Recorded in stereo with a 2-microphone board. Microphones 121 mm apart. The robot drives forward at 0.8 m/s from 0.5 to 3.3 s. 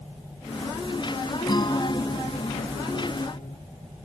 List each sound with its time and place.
1.5 s a guitar: 40° left (ahead or behind); by 3.6 s 75° left (ahead or behind)